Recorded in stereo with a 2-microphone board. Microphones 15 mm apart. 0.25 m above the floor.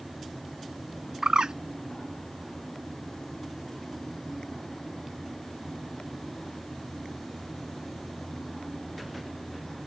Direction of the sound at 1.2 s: 75° right (ahead or behind).